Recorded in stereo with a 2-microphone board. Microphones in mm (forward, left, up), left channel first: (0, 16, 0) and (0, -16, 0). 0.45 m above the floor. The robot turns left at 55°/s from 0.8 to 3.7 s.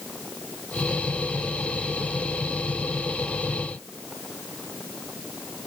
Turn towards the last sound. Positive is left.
No sound to turn to.